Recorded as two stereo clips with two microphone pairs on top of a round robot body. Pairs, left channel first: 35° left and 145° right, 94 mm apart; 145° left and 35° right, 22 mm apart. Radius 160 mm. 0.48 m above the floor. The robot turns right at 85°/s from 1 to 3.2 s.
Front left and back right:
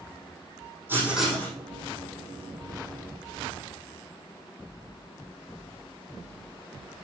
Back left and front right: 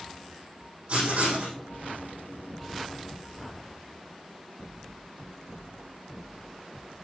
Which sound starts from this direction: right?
Writing, at 0.9 s.